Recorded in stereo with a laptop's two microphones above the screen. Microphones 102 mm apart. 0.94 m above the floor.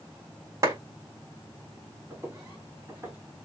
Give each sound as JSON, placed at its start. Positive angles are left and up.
{"t": 0.6, "sound": "a clap", "side_deg": -30, "distance_m": 3.0}
{"t": 2.1, "sound": "footsteps", "side_deg": -25, "distance_m": 3.5}